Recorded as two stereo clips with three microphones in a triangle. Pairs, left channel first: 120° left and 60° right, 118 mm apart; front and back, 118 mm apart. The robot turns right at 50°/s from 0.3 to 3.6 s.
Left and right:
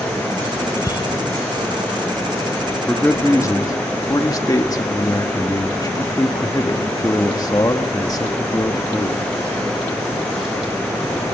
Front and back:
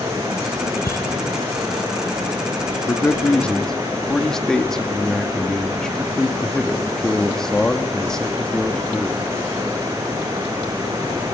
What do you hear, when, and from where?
0.8 s a bicycle bell: 55° left, 3 m; by 1.0 s 70° left, 3 m
2.9 s a man speaking: 45° left, 1.5 m; by 9.2 s 85° left, 1.5 m